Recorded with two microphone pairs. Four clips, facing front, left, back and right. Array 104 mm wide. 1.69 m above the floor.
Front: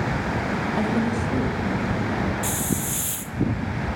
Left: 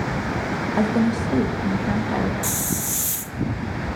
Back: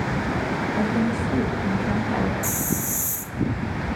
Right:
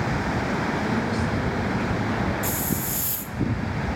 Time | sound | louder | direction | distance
0.8 | a woman speaking | left 5 dB, back 1 dB | 80° left | 2 m
2.4 | a hiss | even, even | 85° left | 0.6 m